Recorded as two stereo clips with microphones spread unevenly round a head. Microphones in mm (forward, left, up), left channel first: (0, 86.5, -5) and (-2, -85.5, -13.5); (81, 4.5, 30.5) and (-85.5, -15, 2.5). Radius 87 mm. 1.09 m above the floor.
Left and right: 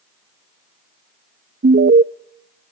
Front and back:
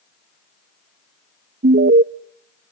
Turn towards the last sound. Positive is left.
turn(degrees=-130)